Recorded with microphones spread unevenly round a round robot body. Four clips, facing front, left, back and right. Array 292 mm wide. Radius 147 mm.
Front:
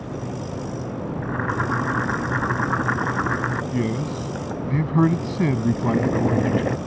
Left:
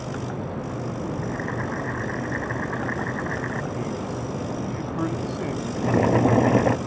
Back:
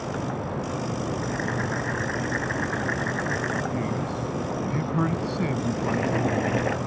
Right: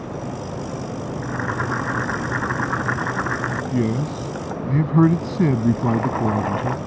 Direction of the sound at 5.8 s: 60° left.